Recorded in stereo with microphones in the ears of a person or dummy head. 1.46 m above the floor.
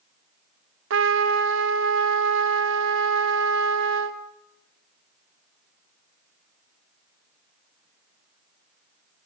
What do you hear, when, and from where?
0.9 s a trumpet: 80° right, 2 m